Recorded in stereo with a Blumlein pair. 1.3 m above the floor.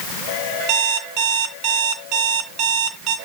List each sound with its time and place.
0.7 s an alarm clock: 30° right, 3 m